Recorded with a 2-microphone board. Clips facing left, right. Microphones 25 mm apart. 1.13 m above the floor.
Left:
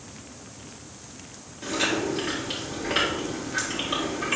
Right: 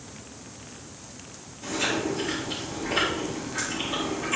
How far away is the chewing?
About 2.5 m.